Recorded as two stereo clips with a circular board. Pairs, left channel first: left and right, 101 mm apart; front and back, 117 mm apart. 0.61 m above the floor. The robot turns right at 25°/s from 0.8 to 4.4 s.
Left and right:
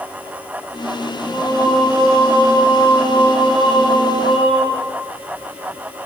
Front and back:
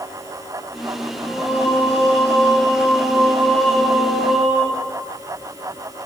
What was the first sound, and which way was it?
Singing, 20° left.